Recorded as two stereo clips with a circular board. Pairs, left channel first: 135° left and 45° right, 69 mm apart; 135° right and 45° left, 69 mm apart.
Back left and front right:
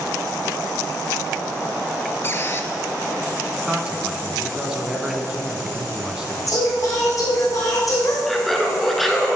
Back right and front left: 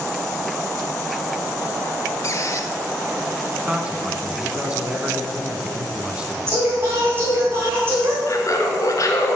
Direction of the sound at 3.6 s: 15° left.